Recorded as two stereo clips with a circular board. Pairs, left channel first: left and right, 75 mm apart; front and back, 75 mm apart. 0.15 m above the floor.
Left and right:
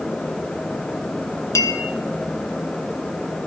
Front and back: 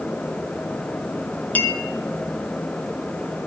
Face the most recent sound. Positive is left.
turn(degrees=65)